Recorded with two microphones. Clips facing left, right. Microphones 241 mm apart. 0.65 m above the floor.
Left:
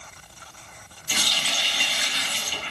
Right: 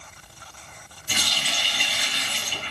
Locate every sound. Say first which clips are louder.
1.1 s a running tap: even; 85° right, 2.5 m